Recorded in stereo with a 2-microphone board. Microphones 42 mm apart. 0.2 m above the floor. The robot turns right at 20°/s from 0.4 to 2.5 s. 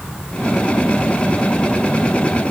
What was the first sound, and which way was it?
Only background noise.